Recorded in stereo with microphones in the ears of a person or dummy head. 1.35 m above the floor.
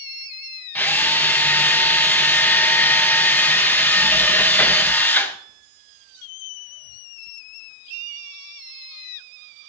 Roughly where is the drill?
Centre.